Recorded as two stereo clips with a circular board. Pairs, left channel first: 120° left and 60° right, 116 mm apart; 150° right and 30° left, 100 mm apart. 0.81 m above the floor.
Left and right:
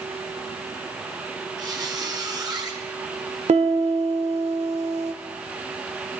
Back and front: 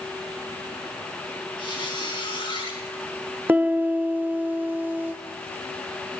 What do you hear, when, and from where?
1.6 s a squeak: 115° right, 3.5 m
3.5 s a piano: 40° right, 1.4 m